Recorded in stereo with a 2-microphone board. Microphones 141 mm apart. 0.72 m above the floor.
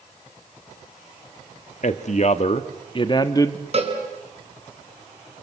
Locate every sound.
1.8 s a man speaking: 60° left (ahead or behind), 1.5 m; by 3.6 s 20° left (ahead or behind), 1.3 m
3.7 s a cowbell: 45° right (ahead or behind), 4 m